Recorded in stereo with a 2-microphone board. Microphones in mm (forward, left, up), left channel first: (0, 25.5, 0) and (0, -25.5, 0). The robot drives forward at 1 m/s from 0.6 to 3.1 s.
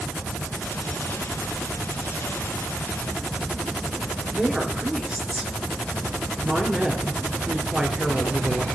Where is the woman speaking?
20° right (ahead or behind), 3 m.